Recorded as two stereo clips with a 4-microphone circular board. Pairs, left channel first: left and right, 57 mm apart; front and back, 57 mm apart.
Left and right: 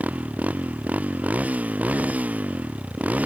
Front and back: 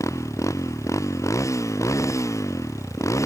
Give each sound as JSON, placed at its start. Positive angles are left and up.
{"t": 0.0, "sound": "a motorcycle", "azimuth_deg": -25}